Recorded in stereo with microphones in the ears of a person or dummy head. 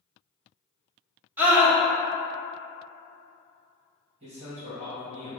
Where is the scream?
10° right (ahead or behind), 0.7 m.